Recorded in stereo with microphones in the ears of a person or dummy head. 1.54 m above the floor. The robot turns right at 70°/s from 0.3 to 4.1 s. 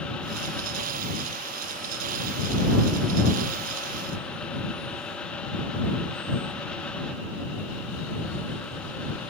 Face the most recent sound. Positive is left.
No sound to turn to.